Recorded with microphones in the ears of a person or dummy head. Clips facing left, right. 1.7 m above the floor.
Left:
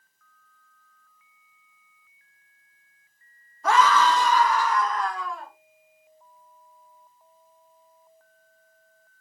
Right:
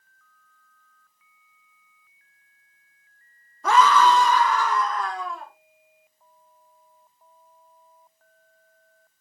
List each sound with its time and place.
3.6 s a scream: 65° right (ahead or behind), 0.7 m